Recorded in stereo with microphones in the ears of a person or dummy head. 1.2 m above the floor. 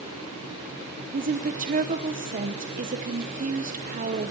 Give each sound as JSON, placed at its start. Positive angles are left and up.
{"t": 1.1, "sound": "a woman speaking", "side_deg": -40, "distance_m": 0.9}